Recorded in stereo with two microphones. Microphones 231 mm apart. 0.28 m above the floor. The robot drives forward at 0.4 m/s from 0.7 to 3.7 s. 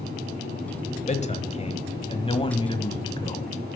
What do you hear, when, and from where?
1.1 s a man speaking: 30° left (ahead or behind), 1.1 m; by 3.5 s 20° left (ahead or behind), 1.7 m